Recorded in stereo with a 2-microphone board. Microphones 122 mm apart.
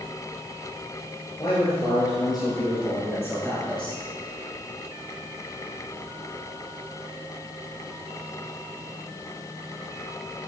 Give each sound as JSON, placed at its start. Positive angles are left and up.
{"t": 1.4, "sound": "a man speaking", "side_deg": 40, "distance_m": 2.5}